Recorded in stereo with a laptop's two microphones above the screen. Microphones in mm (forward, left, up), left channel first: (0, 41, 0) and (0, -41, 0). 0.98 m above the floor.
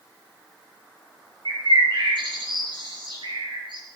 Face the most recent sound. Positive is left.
turn(degrees=-80)